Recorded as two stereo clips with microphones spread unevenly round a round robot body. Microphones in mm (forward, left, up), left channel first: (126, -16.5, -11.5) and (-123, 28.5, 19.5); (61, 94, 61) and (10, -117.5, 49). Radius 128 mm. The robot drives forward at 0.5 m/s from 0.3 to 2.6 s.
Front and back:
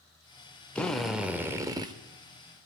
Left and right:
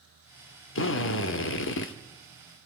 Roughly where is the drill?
Left.